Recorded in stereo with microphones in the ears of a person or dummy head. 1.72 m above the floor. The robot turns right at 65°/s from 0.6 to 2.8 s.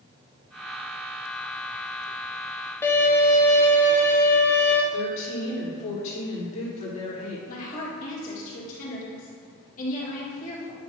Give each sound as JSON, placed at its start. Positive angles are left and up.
{"t": 2.8, "sound": "a violin", "side_deg": 15, "distance_m": 1.2}
{"t": 4.9, "sound": "a woman speaking", "side_deg": 35, "distance_m": 3.0}
{"t": 7.5, "sound": "a woman speaking", "side_deg": 45, "distance_m": 2.5}